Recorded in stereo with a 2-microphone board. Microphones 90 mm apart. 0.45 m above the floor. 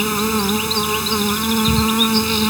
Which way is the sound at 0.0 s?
Centre (ahead or behind).